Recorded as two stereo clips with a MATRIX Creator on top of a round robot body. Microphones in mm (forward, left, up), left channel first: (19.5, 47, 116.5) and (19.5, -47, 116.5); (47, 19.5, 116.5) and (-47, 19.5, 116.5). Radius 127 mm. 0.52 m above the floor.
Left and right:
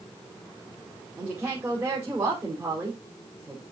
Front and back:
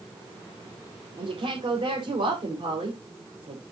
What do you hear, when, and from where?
1.2 s a woman speaking: 165° right, 3.5 m